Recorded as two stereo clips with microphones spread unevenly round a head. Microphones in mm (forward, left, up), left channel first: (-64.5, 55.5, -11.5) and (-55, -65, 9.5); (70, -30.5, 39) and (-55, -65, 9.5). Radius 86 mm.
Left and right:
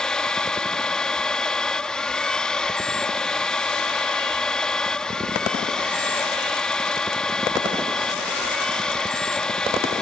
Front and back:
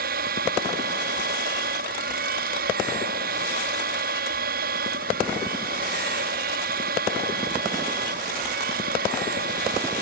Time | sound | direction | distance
0.0 | a machine running | straight behind | ?